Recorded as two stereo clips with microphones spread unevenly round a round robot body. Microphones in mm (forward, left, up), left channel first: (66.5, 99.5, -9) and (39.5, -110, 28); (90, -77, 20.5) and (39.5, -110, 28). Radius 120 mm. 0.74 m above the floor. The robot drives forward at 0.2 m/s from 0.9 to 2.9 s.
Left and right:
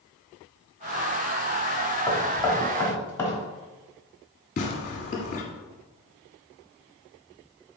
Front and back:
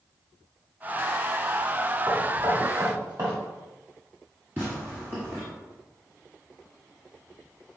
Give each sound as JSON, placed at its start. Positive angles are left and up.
{"t": 2.1, "sound": "knocking", "azimuth_deg": 155, "distance_m": 1.1}
{"t": 4.6, "sound": "tearing paper", "azimuth_deg": 140, "distance_m": 1.1}